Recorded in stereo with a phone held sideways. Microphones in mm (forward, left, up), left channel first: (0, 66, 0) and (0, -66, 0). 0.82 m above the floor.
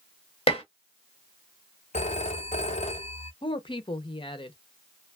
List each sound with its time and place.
0.5 s dishes clattering: 45° left (ahead or behind), 0.8 m
1.9 s a phone ringing: 60° left (ahead or behind), 0.6 m
3.4 s a woman speaking: 40° left (ahead or behind), 0.6 m